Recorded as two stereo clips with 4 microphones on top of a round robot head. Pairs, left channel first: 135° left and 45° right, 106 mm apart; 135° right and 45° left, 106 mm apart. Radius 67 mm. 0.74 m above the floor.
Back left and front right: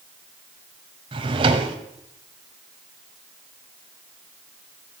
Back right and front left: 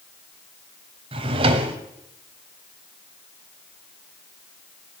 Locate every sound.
1.1 s a drawer: straight ahead, 1.4 m